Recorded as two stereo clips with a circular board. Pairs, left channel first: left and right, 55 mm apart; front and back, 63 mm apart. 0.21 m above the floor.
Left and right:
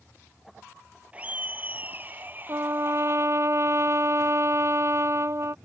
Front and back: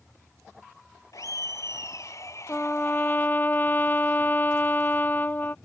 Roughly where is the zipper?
No zipper in this recording.